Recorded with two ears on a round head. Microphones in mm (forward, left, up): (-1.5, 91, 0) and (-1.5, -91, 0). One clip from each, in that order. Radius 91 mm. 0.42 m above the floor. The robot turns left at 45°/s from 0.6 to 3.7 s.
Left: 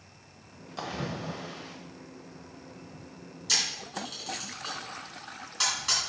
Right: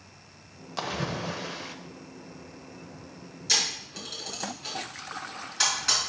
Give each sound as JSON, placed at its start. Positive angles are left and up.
{"t": 0.8, "sound": "a splash", "azimuth_deg": -30, "distance_m": 0.7}
{"t": 3.5, "sound": "a camera shutter", "side_deg": -5, "distance_m": 3.5}